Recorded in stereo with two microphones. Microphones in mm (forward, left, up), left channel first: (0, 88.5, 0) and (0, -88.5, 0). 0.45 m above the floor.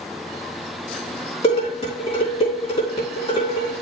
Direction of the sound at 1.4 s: 35° left (ahead or behind).